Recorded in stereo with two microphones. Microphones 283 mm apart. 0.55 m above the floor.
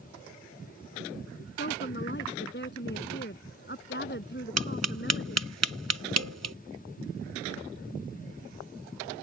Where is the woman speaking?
35° left (ahead or behind).